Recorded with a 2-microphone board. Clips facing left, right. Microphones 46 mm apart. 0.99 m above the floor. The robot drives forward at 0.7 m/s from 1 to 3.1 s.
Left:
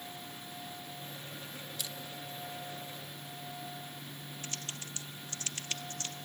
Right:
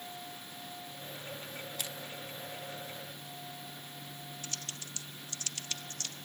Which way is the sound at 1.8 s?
50° right (ahead or behind).